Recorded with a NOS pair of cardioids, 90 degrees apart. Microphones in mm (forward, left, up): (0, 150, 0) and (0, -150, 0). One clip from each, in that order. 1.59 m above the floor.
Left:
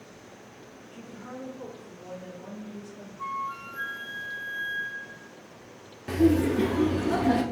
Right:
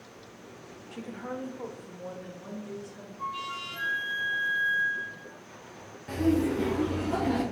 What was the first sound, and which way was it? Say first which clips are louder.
A woman speaking: right 5 dB; 60° right.